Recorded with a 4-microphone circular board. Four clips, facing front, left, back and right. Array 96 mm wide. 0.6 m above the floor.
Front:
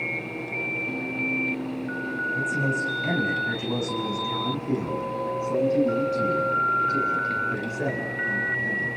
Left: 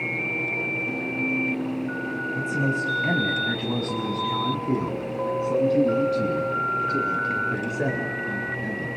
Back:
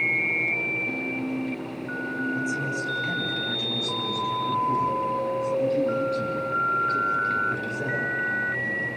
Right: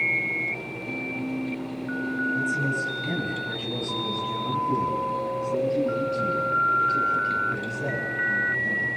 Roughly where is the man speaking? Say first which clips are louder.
Left 1 dB, front 2 dB; ahead left.